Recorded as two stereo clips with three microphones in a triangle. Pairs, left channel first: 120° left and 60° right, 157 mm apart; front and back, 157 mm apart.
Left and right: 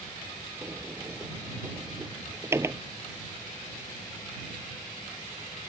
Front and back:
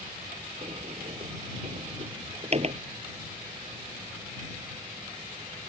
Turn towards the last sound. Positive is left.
turn(degrees=-135)